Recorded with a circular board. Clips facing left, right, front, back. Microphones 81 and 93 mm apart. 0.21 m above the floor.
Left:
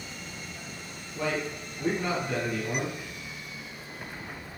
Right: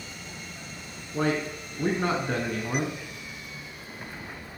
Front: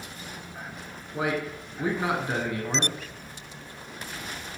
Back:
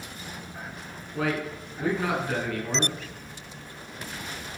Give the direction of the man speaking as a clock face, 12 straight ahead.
2 o'clock.